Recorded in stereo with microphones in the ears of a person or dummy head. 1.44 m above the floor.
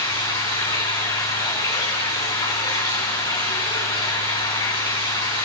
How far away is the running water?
About 4 m.